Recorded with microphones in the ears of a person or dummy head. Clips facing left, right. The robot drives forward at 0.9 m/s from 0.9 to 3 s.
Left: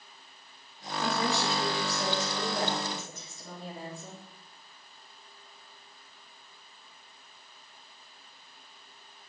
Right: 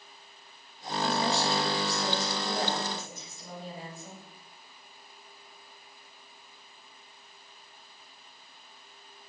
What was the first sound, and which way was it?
A woman speaking, 70° left (ahead or behind).